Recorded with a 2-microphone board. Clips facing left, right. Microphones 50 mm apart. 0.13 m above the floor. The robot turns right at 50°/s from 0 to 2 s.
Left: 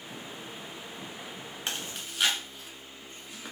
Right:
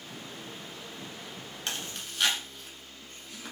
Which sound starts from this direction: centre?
Chewing, at 1.7 s.